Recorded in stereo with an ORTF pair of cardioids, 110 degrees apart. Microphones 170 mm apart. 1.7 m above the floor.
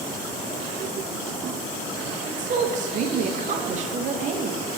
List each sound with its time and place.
2.2 s a woman speaking: 45° right, 0.7 m